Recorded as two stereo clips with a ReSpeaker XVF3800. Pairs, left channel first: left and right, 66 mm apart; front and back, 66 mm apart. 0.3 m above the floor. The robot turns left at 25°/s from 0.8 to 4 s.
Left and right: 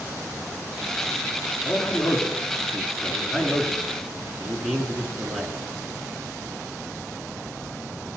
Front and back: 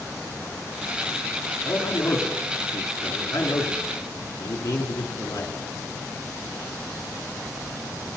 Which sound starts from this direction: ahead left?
A man speaking, at 1.6 s.